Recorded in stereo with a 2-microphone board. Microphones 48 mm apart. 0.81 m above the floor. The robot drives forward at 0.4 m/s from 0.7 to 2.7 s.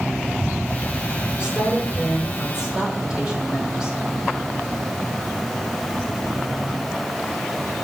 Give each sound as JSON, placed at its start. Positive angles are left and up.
{"t": 1.4, "sound": "a woman speaking", "side_deg": -20, "distance_m": 2.5}